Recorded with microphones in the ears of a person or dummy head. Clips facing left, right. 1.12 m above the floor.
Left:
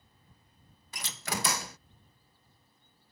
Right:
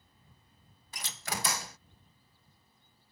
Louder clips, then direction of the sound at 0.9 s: Left 3 dB; 65° left (ahead or behind).